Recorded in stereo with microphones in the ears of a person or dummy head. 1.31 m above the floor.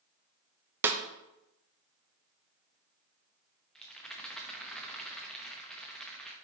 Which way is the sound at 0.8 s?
15° right (ahead or behind).